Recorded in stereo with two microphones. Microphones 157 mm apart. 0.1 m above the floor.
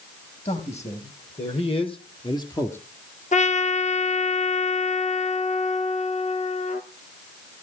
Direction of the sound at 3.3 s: 50° left (ahead or behind).